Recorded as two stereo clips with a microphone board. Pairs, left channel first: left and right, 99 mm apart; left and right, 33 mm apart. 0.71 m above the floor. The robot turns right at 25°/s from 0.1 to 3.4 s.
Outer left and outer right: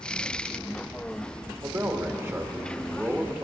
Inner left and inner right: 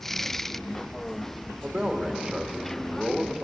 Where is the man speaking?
80° right, 1.2 m; by 3.4 s 35° right, 1.2 m.